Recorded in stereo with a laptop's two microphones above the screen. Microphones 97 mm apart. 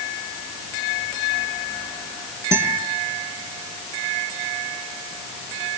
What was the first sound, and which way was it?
A guitar, 30° right (ahead or behind).